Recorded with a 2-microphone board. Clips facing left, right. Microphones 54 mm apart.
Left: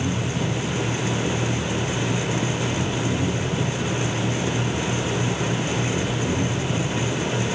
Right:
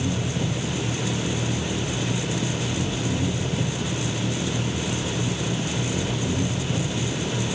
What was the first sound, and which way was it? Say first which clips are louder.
An engine running: left 1 dB; centre (ahead or behind).